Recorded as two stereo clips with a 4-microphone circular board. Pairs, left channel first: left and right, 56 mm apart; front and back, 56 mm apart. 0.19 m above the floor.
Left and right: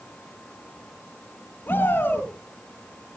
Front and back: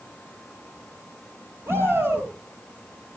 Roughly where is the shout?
Behind left.